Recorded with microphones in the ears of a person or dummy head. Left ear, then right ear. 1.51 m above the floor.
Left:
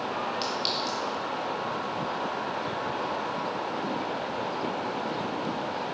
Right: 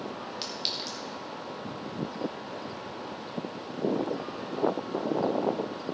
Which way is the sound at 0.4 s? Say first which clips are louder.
Left 1 dB; 5° right (ahead or behind).